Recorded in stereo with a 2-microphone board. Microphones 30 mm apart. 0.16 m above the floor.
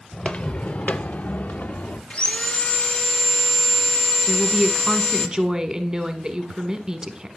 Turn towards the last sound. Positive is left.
turn(degrees=-20)  # may be behind; listen again after turning